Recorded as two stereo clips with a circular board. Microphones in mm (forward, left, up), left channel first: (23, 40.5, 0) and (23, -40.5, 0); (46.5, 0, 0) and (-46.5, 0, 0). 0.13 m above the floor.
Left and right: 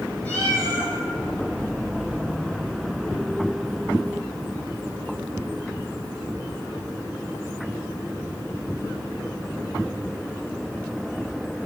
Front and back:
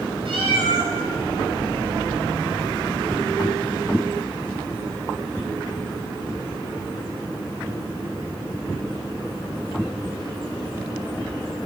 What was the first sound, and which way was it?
A cat meowing, 160° left.